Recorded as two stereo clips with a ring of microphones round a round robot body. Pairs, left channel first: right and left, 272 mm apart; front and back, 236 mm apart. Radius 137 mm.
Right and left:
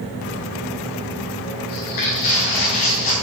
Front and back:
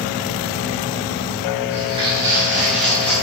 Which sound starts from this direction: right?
Footsteps, at 1.7 s.